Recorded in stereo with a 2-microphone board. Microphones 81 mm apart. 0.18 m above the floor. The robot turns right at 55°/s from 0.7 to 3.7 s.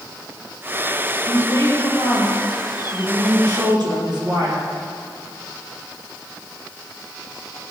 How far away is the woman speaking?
About 4.5 m.